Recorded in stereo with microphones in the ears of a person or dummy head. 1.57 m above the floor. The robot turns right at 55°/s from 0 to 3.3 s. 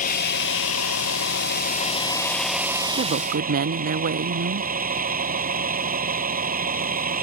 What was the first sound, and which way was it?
A vehicle, 40° left.